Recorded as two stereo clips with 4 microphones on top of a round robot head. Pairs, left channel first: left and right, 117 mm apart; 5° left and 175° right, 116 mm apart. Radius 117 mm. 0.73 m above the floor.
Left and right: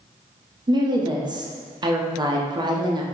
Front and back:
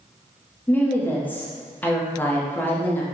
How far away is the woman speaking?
About 0.7 m.